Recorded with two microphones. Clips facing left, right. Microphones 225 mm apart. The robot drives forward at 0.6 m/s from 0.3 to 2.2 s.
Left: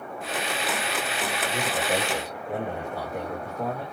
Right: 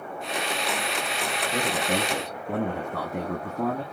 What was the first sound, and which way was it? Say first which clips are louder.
A man speaking: right 1 dB; 75° right (ahead or behind).